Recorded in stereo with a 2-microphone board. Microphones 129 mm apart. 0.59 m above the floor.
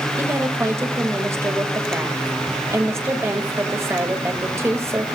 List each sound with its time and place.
0.2 s a woman speaking: 20° right (ahead or behind), 3 m